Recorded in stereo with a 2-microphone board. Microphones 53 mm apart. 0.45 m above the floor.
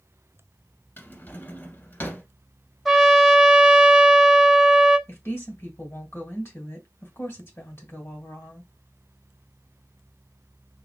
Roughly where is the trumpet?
Centre.